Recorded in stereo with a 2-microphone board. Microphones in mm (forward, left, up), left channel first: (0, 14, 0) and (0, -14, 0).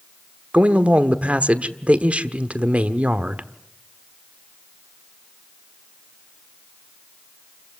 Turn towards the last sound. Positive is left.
turn(degrees=-45)  # may be behind; listen again after turning